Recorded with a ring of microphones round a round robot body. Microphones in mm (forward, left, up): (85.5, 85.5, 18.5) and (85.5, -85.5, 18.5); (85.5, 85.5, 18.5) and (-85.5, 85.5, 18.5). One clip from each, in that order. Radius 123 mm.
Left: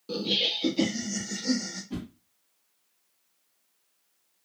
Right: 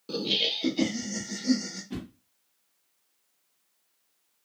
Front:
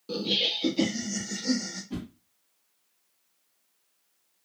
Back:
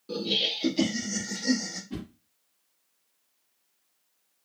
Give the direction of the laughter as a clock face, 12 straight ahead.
1 o'clock.